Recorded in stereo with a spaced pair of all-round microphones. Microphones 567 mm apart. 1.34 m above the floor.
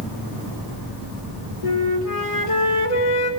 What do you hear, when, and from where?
1.6 s a flute: 65° left (ahead or behind), 0.9 m